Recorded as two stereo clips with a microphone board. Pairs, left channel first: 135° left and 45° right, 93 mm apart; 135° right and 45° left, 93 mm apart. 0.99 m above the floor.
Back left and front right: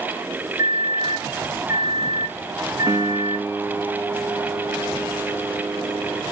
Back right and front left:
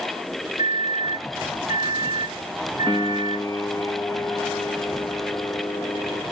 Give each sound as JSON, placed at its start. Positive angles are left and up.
{"t": 0.6, "sound": "a microwave", "azimuth_deg": 15, "distance_m": 1.0}
{"t": 2.9, "sound": "a piano", "azimuth_deg": -90, "distance_m": 0.7}